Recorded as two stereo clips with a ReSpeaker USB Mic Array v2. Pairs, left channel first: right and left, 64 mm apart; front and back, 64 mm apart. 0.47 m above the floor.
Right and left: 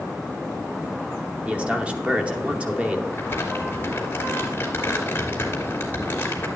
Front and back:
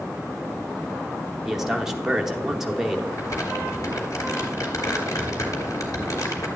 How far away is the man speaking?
About 0.9 m.